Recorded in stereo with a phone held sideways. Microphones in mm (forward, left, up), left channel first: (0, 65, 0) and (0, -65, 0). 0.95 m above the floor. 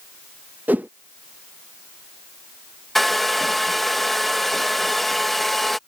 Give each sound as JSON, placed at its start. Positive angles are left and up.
{"t": 0.7, "sound": "a whoosh", "side_deg": -10}
{"t": 3.0, "sound": "a hair dryer", "side_deg": 0}